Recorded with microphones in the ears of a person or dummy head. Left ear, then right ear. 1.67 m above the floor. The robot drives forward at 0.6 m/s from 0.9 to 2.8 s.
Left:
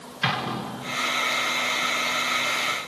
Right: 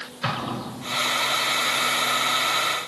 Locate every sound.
0.2 s an explosion: 45° left (ahead or behind), 2.5 m